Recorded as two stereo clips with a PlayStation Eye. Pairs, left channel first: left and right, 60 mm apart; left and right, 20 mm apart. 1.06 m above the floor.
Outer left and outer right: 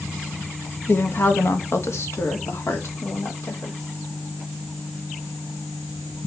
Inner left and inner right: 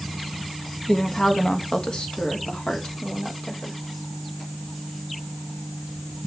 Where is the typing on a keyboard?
I don't hear typing on a keyboard.